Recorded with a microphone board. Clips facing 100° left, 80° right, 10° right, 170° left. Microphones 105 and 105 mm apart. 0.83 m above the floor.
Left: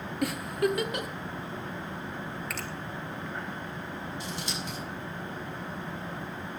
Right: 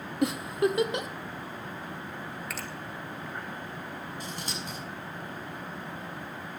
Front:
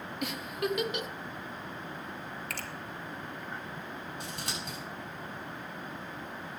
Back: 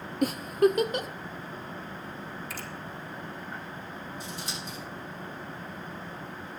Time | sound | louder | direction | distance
0.2 | a giggle | right 2 dB, back 11 dB | 140° right | 0.7 m
2.5 | a finger snap | left 1 dB, back 1 dB | 10° left | 1.5 m
4.2 | scissors | left 1 dB, back 1 dB | 40° right | 7 m